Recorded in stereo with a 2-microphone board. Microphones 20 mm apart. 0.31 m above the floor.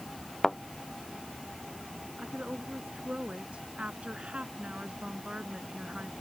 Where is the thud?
10° left (ahead or behind).